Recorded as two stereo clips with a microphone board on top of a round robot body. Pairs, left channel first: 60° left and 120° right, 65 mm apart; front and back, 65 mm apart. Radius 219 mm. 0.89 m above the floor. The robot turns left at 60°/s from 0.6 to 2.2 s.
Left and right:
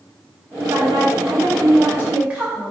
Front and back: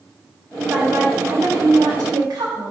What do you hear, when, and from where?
0.7 s a woman speaking: 105° right, 4 m; by 2.7 s 165° left, 4 m